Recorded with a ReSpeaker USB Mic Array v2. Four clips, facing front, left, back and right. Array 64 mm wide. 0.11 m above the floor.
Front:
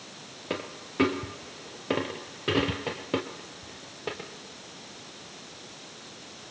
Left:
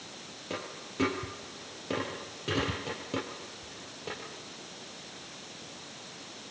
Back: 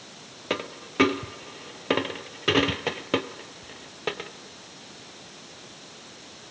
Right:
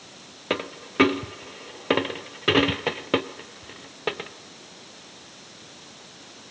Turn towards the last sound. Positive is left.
turn(degrees=-110)